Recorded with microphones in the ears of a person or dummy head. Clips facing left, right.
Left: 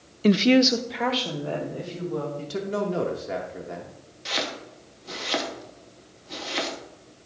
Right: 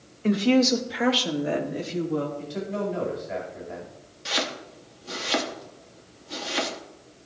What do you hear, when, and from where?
0.2 s a woman speaking: 45° left (ahead or behind), 0.5 m; by 2.3 s 30° right (ahead or behind), 1.8 m
2.4 s a man speaking: 75° left (ahead or behind), 1.3 m
4.2 s chopping: 5° right (ahead or behind), 1.0 m